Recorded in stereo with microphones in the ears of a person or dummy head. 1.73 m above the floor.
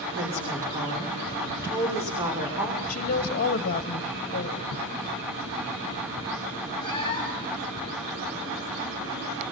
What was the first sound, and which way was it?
A woman speaking, 15° right (ahead or behind).